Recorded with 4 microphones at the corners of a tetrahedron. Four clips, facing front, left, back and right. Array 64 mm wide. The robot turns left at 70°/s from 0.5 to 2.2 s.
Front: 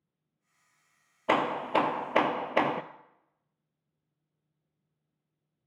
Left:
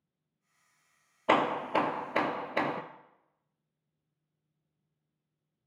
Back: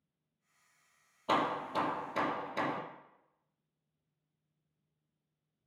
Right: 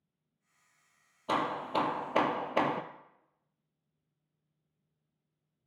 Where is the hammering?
55° left, 0.6 m; by 2.8 s 10° right, 0.6 m.